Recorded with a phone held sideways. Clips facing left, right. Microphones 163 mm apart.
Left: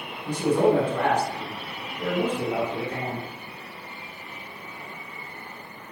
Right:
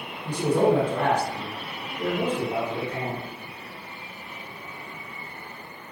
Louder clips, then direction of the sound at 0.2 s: Even; 50° right (ahead or behind).